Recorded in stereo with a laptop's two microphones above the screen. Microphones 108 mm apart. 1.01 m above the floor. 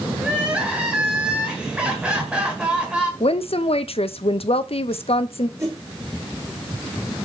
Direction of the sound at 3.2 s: 65° left (ahead or behind).